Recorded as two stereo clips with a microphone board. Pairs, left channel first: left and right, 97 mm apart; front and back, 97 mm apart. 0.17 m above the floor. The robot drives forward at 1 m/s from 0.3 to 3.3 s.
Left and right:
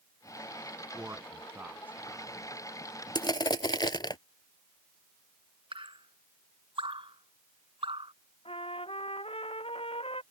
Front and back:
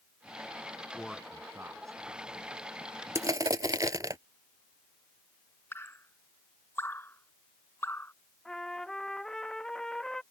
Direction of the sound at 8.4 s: 85° left.